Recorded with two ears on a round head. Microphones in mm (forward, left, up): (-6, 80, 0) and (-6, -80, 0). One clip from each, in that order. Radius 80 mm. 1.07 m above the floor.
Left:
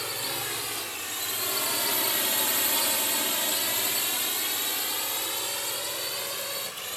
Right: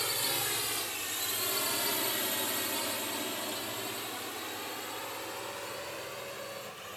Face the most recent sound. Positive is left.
turn(degrees=75)  # may be behind; listen again after turning